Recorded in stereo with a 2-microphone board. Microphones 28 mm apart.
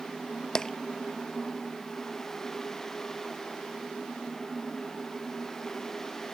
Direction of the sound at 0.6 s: 25° left (ahead or behind).